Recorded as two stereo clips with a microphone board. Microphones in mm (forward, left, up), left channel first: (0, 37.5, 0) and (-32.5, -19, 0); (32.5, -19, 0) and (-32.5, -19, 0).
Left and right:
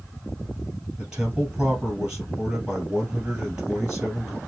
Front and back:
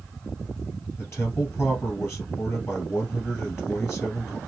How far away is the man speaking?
About 2 m.